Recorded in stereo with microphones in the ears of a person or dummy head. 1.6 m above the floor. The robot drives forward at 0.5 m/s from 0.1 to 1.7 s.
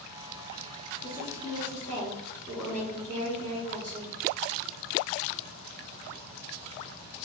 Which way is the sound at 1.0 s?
30° left (ahead or behind).